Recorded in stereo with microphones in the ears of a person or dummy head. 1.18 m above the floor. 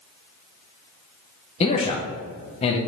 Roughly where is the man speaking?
Left.